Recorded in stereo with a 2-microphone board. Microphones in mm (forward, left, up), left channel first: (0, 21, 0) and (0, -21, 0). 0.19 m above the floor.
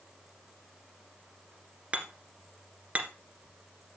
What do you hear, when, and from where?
1.9 s hammering: 35° right (ahead or behind), 1.8 m